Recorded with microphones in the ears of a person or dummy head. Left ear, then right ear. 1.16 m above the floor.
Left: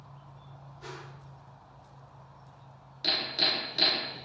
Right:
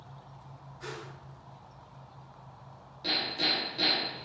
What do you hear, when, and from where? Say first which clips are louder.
0.8 s a whoosh: right 3 dB; 60° right (ahead or behind), 1.4 m
3.0 s hammering: left 2 dB; 45° left (ahead or behind), 0.5 m